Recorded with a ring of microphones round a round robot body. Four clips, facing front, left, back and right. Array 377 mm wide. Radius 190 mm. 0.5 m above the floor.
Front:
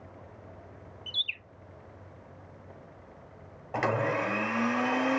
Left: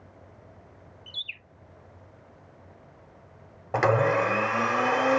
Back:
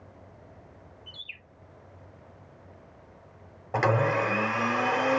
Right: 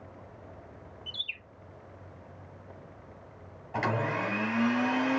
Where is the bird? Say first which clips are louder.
Right 1 dB, front 6 dB; straight ahead, 2 m.